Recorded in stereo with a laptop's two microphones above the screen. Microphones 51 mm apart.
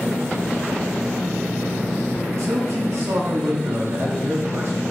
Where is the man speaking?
70° right (ahead or behind), 2.5 m.